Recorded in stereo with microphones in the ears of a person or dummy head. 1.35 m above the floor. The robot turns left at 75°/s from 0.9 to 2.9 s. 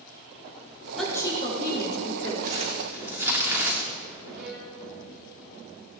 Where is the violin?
60° right (ahead or behind), 3.5 m.